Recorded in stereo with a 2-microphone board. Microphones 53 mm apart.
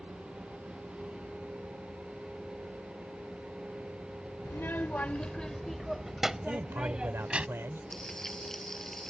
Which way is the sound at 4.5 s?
50° left (ahead or behind).